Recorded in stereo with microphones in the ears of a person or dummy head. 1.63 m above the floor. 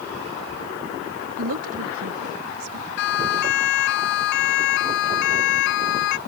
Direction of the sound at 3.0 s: 75° left (ahead or behind).